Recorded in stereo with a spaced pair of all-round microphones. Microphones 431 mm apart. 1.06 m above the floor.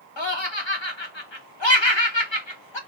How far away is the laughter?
About 1.2 m.